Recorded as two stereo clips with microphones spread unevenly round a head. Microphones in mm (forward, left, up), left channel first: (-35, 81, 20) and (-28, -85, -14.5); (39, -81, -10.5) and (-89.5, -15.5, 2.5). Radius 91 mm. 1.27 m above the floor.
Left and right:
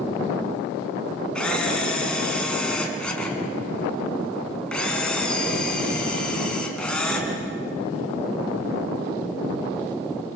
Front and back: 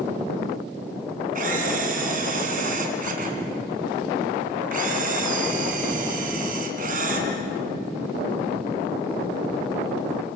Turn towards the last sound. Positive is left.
turn(degrees=175)